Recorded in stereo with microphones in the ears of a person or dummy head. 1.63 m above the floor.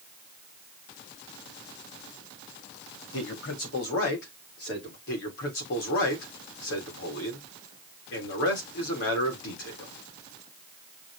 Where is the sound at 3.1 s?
85° left, 3.5 m; by 5.0 s 55° left (ahead or behind), 4.5 m.